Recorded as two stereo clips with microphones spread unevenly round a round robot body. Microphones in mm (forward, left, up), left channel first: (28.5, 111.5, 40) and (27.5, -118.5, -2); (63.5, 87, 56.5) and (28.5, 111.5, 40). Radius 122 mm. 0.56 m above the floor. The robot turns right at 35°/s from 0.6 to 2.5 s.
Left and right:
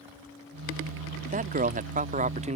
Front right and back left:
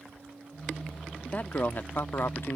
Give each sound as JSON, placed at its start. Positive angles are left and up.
{"t": 1.2, "sound": "a man speaking", "azimuth_deg": -110}